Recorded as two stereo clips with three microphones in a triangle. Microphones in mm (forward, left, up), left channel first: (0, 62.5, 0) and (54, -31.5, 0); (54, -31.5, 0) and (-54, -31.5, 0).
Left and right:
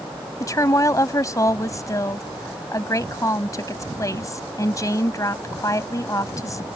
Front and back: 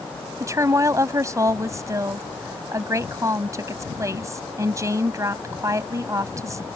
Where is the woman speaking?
150° left.